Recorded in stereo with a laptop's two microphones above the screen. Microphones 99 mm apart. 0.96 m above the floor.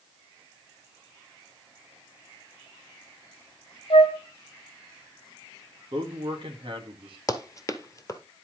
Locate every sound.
3.9 s a flute: 75° left (ahead or behind), 1.5 m
5.9 s a man speaking: 55° right (ahead or behind), 1.9 m
7.3 s running footsteps: 30° left (ahead or behind), 1.3 m